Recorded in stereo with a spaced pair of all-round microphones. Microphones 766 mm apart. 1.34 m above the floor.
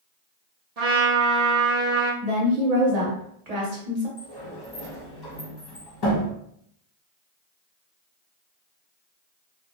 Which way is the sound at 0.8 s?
55° right (ahead or behind).